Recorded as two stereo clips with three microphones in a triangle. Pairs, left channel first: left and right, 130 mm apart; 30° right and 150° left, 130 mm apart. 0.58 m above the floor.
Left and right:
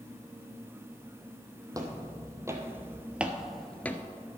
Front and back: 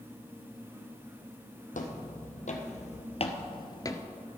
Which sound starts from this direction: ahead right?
Footsteps, at 1.7 s.